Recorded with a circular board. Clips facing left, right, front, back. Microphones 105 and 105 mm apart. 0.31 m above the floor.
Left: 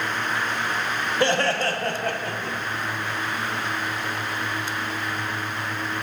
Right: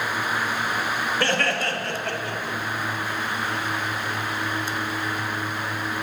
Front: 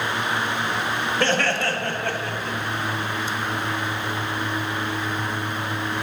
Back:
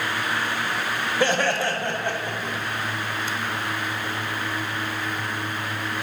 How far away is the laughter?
About 0.9 m.